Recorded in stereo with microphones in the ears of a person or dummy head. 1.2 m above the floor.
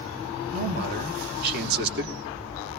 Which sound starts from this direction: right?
A man speaking, at 0.5 s.